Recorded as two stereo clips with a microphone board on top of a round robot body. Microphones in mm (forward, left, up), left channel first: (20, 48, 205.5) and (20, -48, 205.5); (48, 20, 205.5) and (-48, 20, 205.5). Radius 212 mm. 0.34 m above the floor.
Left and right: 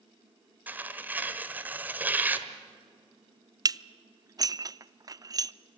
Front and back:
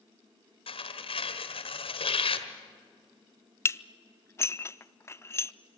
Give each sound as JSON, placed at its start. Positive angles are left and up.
{"t": 0.7, "sound": "tearing paper", "azimuth_deg": -15, "distance_m": 1.5}
{"t": 3.6, "sound": "dishes clattering", "azimuth_deg": -50, "distance_m": 0.6}